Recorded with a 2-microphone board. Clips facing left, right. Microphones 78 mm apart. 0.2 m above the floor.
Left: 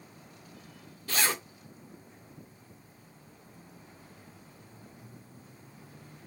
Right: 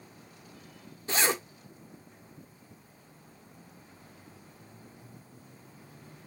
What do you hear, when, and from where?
1.1 s a zipper: 20° right (ahead or behind), 1.0 m